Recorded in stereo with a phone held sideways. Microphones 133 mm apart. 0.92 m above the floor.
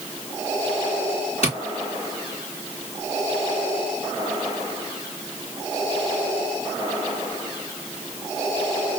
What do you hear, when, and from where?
1.4 s tapping: 55° left (ahead or behind), 2.5 m